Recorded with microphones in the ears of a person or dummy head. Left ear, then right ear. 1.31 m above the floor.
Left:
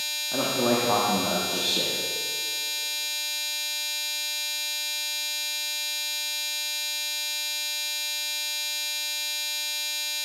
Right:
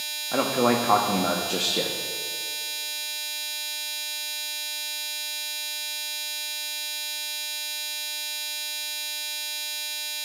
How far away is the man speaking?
About 0.9 m.